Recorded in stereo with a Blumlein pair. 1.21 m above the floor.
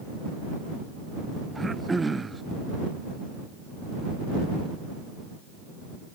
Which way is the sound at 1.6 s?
10° right.